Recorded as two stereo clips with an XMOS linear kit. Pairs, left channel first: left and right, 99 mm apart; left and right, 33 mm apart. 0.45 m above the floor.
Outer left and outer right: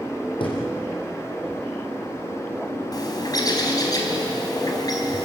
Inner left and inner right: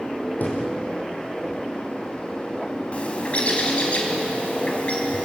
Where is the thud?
60° left (ahead or behind), 5.5 m.